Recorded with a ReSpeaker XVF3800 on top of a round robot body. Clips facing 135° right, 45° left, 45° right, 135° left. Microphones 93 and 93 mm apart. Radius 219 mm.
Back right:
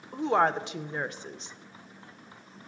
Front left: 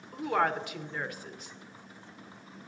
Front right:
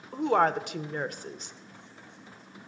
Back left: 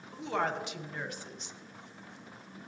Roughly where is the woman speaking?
Right.